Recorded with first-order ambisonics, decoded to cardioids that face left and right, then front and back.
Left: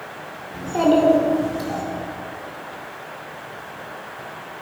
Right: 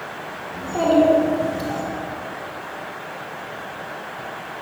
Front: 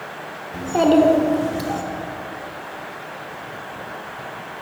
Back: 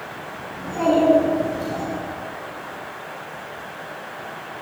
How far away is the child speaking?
About 2.5 m.